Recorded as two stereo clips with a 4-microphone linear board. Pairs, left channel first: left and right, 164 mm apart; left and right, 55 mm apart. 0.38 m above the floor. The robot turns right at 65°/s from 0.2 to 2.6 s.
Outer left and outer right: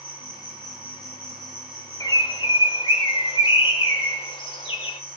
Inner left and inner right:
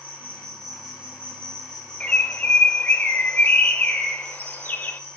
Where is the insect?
145° left, 3.5 m; by 5.2 s 60° right, 3.5 m.